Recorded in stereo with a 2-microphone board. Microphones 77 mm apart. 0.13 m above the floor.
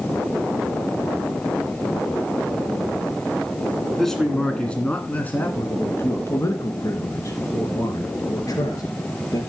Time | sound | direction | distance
4.0 | a man speaking | 5° left (ahead or behind) | 1.7 m